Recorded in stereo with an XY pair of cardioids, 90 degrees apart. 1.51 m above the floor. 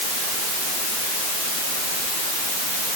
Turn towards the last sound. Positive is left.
No sound to turn to.